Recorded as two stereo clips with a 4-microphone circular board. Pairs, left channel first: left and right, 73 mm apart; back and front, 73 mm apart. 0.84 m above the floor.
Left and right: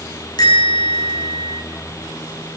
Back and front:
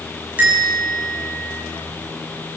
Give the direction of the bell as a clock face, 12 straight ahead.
10 o'clock.